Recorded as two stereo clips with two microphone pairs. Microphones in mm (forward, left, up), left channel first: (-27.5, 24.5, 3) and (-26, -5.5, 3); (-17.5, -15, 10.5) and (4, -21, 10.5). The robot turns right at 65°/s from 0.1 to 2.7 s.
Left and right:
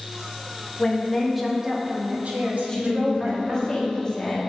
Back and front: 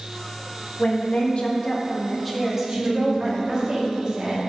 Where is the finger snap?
I don't hear a finger snap.